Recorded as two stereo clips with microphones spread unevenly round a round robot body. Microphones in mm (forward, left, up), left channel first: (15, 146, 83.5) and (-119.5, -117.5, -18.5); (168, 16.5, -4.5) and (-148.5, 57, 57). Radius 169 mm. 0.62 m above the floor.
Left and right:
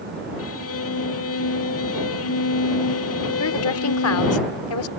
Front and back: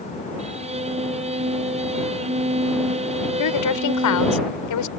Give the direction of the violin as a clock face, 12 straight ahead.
9 o'clock.